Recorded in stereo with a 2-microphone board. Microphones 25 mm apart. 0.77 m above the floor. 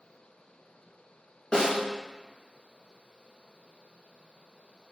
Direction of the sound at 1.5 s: 35° left (ahead or behind).